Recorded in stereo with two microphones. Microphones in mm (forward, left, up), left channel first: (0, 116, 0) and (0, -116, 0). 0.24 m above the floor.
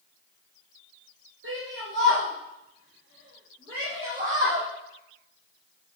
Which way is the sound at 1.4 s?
55° right (ahead or behind).